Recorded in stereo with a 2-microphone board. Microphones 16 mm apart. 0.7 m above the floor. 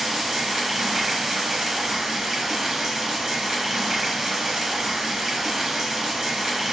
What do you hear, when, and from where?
0.0 s running water: 40° right (ahead or behind), 1.0 m